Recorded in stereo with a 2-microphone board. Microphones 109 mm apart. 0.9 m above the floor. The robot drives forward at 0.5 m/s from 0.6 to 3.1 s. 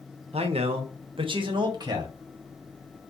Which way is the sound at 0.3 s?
70° right (ahead or behind).